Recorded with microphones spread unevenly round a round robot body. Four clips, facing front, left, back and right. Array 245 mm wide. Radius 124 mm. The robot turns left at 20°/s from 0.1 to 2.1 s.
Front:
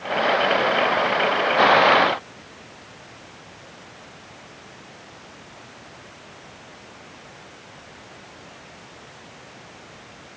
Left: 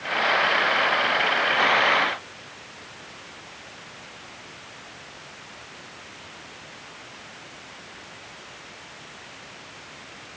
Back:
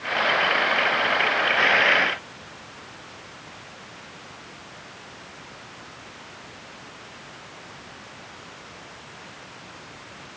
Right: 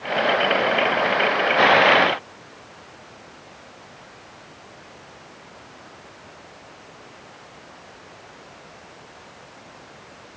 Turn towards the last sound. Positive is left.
No sound to turn to.